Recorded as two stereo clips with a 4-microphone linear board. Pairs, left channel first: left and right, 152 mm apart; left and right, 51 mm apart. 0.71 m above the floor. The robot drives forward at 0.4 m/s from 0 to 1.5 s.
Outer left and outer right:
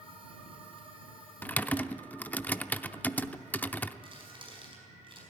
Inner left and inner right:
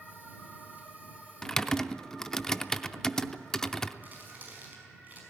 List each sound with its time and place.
1.4 s typing on a keyboard: 15° left (ahead or behind), 0.6 m; by 3.9 s 10° left (ahead or behind), 0.6 m
4.0 s crumpling: 35° right (ahead or behind), 5 m